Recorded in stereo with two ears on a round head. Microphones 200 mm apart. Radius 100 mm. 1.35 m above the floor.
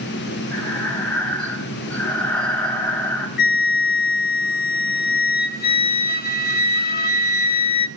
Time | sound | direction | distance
0.5 | breathing | 10° left (ahead or behind) | 4 m
3.4 | a flute | 45° left (ahead or behind) | 0.9 m